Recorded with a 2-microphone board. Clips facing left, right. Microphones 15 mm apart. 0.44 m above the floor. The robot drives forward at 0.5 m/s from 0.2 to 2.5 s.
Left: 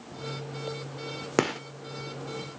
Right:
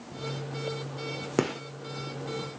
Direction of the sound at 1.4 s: 20° left (ahead or behind).